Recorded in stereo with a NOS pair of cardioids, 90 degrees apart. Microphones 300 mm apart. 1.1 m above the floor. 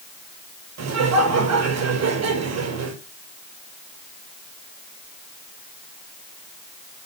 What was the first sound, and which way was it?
Laughter, 60° right.